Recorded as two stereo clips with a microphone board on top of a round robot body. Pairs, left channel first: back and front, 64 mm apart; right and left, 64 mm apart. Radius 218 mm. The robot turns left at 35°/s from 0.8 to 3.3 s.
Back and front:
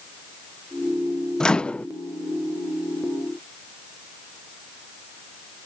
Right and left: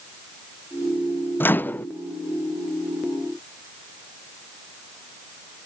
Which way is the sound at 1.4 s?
110° right.